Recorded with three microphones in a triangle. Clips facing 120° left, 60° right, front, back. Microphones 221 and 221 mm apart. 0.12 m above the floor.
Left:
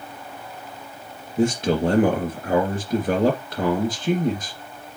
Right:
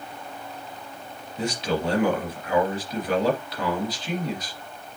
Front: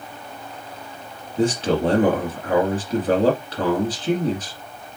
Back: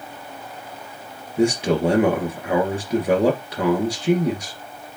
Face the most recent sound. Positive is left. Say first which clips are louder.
# left 7 dB, back 1 dB
turn(degrees=105)